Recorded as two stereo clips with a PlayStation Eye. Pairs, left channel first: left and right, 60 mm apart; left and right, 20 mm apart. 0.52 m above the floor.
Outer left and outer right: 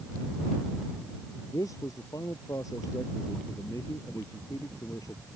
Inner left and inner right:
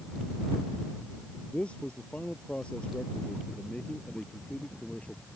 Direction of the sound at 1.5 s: 70° left (ahead or behind).